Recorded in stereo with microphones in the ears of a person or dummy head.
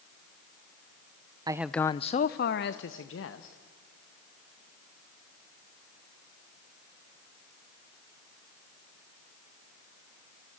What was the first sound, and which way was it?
A man speaking, 20° right (ahead or behind).